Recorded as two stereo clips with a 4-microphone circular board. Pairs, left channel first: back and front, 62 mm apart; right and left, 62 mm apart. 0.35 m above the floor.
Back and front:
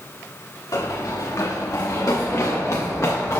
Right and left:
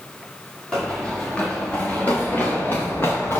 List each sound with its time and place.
0.7 s running footsteps: 170° right, 3.5 m; by 3.4 s 140° right, 3.5 m